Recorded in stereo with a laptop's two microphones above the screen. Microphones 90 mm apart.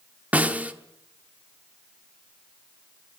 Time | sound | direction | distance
0.3 | a snare drum | 20° right (ahead or behind) | 1.0 m